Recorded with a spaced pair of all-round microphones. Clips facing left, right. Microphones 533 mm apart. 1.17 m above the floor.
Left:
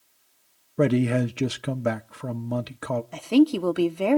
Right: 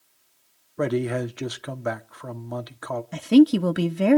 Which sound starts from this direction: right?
A woman speaking, at 3.1 s.